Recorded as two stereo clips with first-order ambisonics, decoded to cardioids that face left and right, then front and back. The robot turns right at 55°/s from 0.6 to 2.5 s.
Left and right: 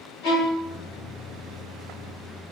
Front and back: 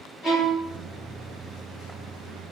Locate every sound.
0.2 s a violin: 70° left, 2 m; by 0.7 s 80° left, 2 m